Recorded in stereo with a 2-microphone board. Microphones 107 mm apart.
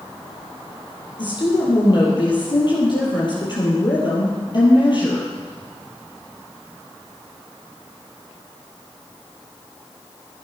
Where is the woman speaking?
45° left (ahead or behind), 4.5 m.